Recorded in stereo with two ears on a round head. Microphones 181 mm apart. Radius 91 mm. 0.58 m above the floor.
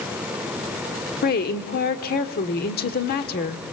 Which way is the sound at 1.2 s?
45° left (ahead or behind).